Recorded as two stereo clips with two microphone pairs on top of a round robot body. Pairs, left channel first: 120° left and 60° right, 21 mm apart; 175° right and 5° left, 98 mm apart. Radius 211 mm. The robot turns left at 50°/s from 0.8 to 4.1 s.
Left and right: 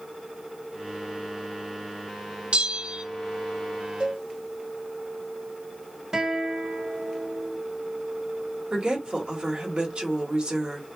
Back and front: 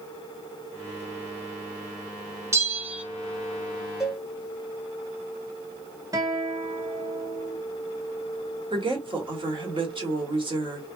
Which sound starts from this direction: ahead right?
A bell, at 2.5 s.